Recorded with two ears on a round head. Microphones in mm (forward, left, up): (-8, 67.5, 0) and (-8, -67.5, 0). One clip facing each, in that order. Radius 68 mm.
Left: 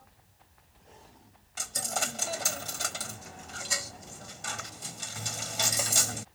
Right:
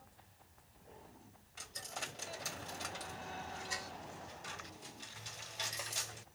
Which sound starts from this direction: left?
A dropped coin, at 1.6 s.